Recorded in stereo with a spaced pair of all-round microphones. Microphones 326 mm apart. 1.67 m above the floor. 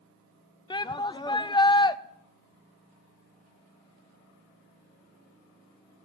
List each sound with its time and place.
0.7 s a shout: 15° left (ahead or behind), 0.5 m